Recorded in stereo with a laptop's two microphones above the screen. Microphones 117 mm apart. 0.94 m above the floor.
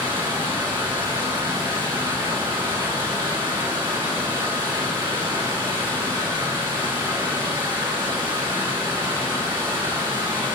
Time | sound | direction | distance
0.0 | running water | 40° right (ahead or behind) | 3 m